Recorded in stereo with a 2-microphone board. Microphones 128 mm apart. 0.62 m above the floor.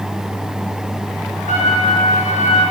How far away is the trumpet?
About 4 m.